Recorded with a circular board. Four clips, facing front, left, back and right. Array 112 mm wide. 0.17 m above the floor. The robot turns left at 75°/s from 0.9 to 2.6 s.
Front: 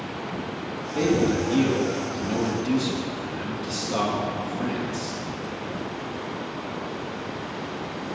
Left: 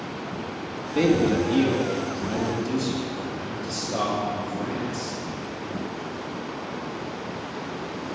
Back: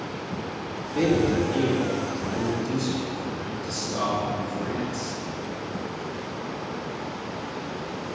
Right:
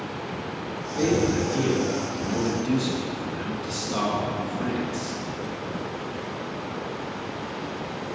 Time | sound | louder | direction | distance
0.9 | a man speaking | left 2 dB, even | 85° left | 1.3 m